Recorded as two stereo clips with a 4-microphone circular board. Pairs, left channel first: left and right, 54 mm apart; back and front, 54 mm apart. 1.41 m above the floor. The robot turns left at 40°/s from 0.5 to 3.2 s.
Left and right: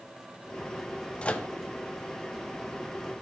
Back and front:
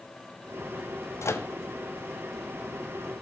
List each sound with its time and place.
1.2 s a microwave: 160° left, 0.5 m; by 1.5 s 150° left, 0.5 m